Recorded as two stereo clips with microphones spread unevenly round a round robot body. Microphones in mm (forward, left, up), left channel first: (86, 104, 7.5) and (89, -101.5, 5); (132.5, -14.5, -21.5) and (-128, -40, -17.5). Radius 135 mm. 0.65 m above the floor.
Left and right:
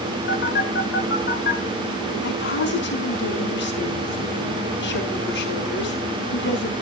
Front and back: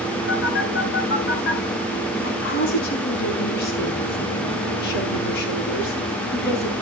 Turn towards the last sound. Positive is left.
turn(degrees=65)